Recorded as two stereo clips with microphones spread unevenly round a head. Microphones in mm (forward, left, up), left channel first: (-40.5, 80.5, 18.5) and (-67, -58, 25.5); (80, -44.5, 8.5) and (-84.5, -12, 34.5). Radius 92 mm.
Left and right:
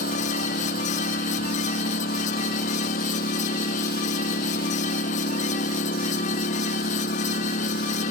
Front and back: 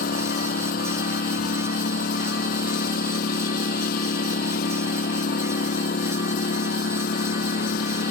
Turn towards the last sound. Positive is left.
turn(degrees=35)